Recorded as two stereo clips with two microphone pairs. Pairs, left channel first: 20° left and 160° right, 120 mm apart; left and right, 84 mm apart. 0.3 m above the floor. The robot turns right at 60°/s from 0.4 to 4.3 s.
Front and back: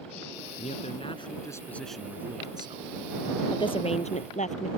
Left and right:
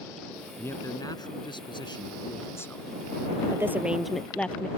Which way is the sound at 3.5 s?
35° right.